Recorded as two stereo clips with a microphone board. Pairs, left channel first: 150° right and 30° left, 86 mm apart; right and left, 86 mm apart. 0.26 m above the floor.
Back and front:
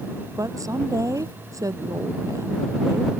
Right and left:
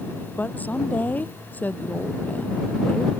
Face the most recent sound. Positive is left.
turn(degrees=-20)